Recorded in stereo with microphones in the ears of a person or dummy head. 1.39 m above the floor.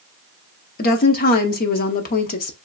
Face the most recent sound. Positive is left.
turn(degrees=45)  # may be behind; listen again after turning